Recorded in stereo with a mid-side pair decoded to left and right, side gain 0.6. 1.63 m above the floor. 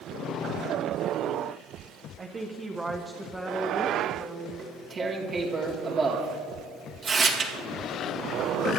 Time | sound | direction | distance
2.2 | a woman speaking | 30° right | 1.1 m
4.6 | tearing paper | 30° right | 2 m